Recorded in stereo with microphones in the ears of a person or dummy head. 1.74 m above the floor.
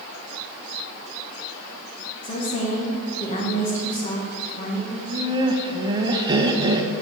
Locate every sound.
2.2 s a woman speaking: 40° left (ahead or behind), 2.5 m
4.9 s laughter: 25° right (ahead or behind), 1.4 m